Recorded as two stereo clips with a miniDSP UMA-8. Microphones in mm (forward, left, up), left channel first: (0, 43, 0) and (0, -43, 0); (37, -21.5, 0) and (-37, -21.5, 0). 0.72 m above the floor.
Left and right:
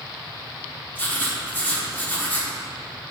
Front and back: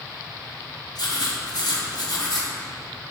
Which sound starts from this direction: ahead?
Writing, at 0.9 s.